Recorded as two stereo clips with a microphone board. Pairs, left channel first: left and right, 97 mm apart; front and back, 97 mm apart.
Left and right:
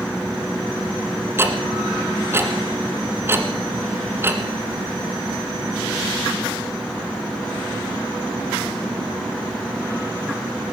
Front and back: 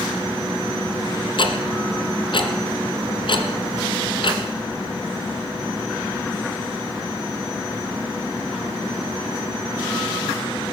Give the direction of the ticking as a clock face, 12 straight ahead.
1 o'clock.